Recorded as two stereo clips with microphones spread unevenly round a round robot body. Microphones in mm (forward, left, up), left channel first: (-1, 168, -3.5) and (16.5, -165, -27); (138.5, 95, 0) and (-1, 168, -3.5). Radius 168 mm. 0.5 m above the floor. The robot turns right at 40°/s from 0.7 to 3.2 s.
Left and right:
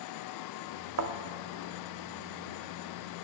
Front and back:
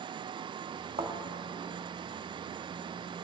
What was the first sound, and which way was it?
A thud, 140° right.